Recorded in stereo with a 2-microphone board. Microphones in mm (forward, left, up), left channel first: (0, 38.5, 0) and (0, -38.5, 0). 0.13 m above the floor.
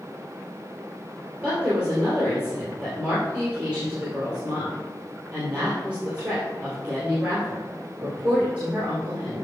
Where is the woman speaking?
15° right (ahead or behind), 2.5 m.